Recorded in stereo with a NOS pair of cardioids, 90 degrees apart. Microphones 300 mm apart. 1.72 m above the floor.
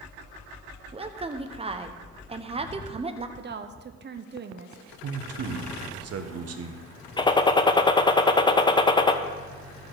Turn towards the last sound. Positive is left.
turn(degrees=15)